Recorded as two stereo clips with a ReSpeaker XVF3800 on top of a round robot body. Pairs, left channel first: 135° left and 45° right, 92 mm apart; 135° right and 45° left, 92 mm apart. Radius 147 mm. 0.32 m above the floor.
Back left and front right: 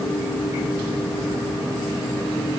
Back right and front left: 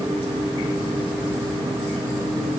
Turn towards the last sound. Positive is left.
No sound to turn to.